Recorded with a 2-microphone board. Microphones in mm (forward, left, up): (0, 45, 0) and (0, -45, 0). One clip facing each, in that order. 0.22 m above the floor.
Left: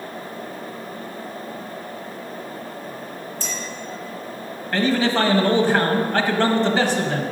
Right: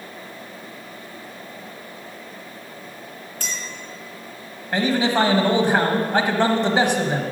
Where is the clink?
60° right (ahead or behind), 2.5 m.